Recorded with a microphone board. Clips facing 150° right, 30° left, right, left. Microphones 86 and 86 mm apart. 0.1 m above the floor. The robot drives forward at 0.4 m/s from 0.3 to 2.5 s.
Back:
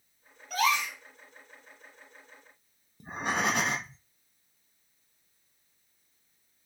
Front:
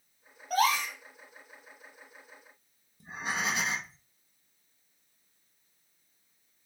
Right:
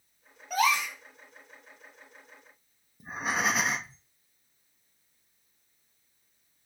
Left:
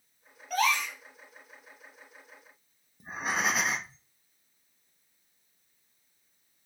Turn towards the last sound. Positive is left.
turn(degrees=180)